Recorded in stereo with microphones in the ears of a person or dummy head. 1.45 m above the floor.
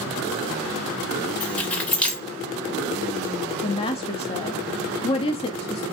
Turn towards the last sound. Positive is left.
turn(degrees=25)  # may be behind; listen again after turning